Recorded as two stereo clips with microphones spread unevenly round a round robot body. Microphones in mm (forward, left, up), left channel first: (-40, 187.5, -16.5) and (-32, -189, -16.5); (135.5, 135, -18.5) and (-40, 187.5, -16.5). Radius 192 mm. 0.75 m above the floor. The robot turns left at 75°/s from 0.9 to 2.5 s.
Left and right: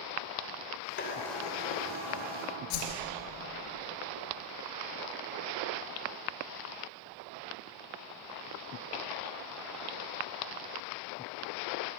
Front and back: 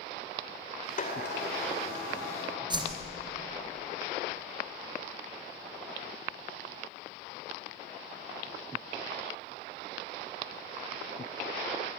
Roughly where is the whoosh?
Left.